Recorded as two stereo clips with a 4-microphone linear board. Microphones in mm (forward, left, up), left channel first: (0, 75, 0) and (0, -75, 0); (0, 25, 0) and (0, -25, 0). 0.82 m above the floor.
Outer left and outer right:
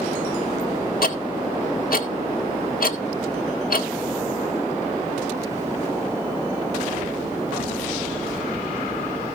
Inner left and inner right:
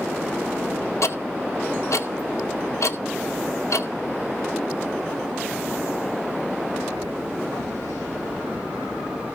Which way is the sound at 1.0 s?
75° left (ahead or behind).